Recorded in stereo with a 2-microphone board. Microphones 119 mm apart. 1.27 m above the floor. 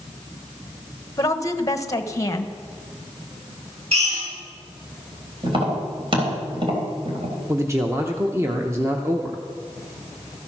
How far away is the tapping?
About 3.5 m.